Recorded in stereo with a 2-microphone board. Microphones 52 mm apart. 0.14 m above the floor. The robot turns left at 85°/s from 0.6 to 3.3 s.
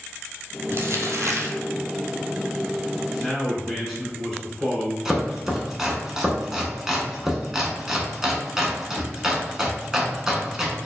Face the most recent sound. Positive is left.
turn(degrees=-10)  # may be behind; listen again after turning